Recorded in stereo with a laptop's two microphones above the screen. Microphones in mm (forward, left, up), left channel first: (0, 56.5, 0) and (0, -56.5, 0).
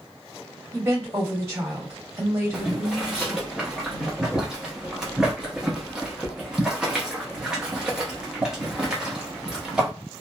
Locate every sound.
0.7 s a woman speaking: 30° right (ahead or behind), 1.8 m
2.5 s boiling: 5° right (ahead or behind), 0.9 m